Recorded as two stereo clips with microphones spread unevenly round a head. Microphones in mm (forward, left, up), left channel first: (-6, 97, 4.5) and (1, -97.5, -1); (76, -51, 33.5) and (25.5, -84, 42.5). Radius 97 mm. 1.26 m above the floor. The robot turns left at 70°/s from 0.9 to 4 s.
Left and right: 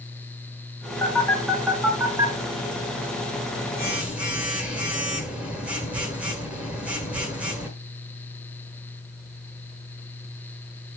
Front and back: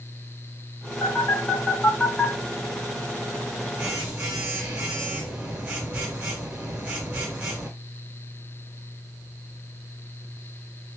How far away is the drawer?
I don't hear a drawer.